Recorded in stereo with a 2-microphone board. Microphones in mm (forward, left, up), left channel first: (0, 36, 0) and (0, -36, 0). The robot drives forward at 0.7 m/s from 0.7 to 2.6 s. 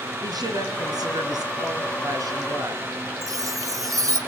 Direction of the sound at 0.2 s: 65° right (ahead or behind).